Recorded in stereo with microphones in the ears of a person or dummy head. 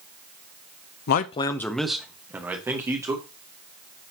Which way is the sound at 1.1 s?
60° left (ahead or behind).